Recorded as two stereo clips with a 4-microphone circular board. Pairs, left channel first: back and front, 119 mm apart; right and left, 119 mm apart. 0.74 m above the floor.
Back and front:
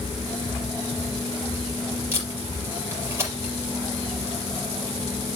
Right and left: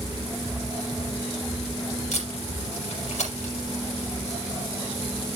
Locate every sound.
2.1 s tape being pulled: 70° right, 4.5 m